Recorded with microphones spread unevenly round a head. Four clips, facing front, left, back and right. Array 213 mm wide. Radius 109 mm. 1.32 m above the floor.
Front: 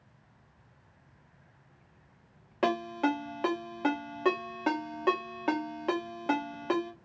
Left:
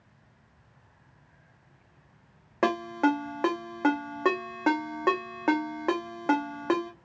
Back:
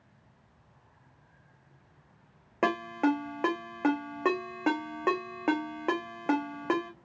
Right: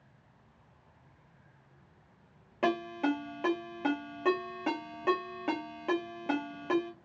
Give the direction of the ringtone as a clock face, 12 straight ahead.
8 o'clock.